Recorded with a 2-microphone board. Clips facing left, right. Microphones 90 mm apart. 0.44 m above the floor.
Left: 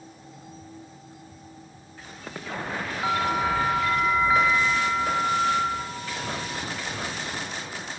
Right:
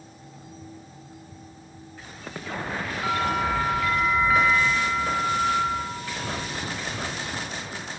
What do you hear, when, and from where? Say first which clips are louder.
3.0 s a bell: left 1 dB; 20° left (ahead or behind), 1.7 m